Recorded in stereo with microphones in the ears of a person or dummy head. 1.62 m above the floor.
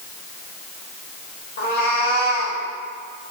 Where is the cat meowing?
50° left (ahead or behind), 1.7 m.